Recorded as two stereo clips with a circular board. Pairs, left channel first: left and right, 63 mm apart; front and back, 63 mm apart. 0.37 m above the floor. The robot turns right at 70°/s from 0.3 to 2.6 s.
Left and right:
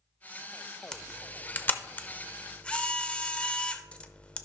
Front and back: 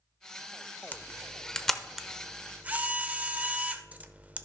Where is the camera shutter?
25° left, 0.6 m; by 4.5 s 140° left, 0.6 m.